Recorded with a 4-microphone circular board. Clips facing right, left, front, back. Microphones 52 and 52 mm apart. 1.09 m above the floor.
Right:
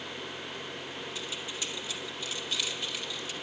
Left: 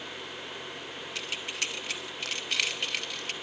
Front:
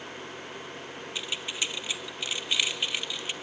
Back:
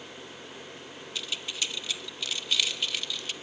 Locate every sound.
1.1 s keys jangling: 65° left, 1.0 m